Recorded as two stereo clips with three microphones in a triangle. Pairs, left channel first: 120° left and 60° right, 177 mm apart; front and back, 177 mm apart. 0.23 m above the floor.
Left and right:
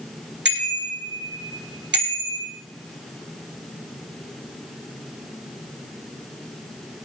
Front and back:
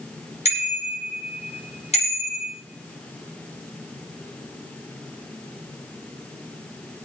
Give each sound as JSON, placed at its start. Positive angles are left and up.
{"t": 0.5, "sound": "a bicycle bell", "azimuth_deg": -55, "distance_m": 8.0}